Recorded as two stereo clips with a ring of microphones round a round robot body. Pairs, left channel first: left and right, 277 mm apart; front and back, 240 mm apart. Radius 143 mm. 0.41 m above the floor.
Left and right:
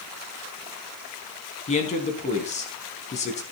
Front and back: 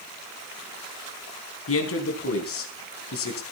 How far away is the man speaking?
About 3.5 m.